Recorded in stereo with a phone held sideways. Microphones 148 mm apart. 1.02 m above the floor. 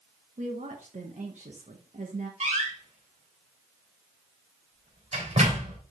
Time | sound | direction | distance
0.4 | a woman speaking | 55° right (ahead or behind) | 1.3 m
2.4 | a door slam | 50° right (ahead or behind) | 3.5 m